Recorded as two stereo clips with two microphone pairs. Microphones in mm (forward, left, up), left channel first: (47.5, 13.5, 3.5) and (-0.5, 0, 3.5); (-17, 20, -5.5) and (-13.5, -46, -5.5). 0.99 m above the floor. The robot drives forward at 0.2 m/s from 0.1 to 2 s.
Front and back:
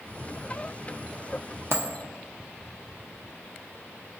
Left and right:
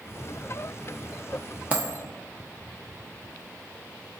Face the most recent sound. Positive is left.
turn(degrees=-150)